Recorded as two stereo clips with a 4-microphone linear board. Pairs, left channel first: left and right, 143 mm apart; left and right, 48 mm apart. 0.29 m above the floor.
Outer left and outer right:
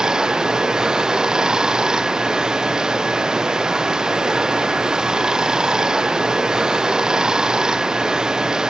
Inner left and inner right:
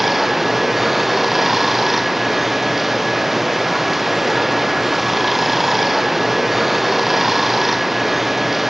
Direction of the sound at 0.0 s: 5° right (ahead or behind).